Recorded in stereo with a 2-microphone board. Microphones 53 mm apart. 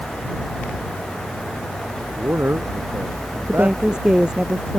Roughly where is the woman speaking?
Centre.